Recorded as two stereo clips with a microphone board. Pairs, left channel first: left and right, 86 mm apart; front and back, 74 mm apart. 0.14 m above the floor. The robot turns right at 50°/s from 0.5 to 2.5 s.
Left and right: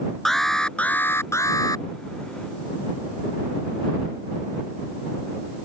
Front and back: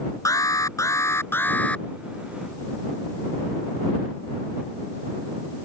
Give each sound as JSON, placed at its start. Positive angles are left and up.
{"t": 0.2, "sound": "an alarm", "azimuth_deg": 5}